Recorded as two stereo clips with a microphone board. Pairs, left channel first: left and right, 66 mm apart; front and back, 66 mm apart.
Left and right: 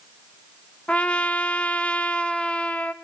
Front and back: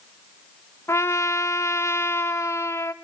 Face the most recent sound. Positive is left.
turn(degrees=25)